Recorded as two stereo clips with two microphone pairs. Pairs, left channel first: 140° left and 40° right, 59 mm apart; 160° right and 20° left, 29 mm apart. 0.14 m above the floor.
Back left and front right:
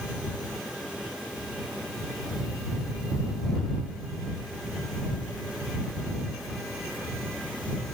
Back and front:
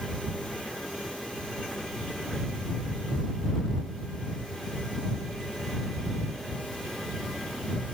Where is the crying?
I don't hear crying.